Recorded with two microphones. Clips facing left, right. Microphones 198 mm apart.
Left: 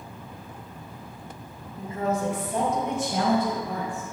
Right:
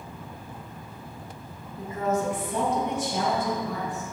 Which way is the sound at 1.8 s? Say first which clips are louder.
Even; 30° left (ahead or behind).